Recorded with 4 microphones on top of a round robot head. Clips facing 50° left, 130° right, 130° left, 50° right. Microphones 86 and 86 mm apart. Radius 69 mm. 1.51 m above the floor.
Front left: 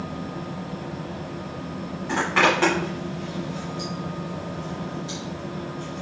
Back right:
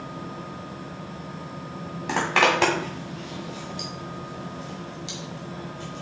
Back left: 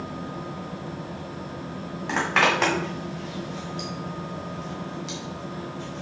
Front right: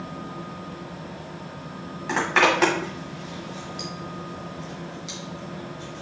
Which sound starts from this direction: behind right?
A zipper, at 2.1 s.